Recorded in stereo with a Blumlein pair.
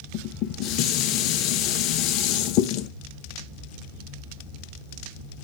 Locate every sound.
0.1 s dishes clattering: 40° left, 0.6 m